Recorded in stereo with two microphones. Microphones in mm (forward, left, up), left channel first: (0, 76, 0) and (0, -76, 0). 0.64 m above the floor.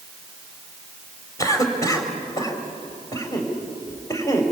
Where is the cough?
20° left (ahead or behind), 3.5 m.